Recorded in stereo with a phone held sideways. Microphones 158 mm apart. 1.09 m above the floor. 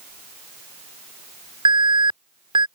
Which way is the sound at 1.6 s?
30° right (ahead or behind).